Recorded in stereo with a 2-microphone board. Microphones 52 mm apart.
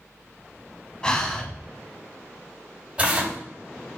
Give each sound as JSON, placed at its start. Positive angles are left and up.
{"t": 1.0, "sound": "breathing", "side_deg": 20, "distance_m": 0.6}
{"t": 3.0, "sound": "tearing paper", "side_deg": -25, "distance_m": 2.0}